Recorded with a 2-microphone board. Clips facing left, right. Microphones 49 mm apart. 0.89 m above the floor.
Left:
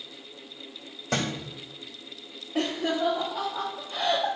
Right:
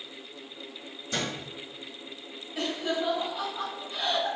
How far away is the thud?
About 1.3 m.